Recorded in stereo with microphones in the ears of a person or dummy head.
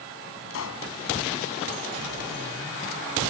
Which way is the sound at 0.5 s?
75° left (ahead or behind).